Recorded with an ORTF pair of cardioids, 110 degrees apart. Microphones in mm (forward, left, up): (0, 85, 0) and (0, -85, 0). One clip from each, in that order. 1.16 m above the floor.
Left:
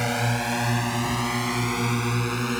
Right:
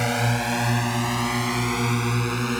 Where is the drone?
40° right; by 2.6 s 25° right.